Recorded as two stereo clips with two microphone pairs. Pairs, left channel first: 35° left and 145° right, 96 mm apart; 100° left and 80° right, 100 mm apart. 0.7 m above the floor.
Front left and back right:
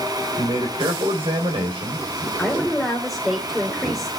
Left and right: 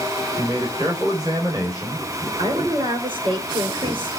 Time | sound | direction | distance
0.4 | a man speaking | 130° right | 3.5 m
2.4 | a woman speaking | 55° right | 2.5 m